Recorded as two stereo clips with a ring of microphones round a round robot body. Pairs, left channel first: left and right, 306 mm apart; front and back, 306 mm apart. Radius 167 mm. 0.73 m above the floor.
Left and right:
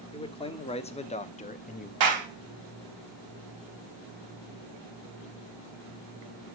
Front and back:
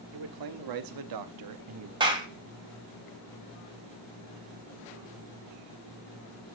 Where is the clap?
105° right, 4 m.